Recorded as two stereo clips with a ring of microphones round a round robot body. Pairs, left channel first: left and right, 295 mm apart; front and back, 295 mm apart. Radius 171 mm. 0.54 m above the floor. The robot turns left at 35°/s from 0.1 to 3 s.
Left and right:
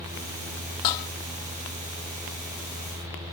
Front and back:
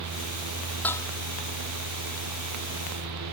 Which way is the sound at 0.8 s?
85° left.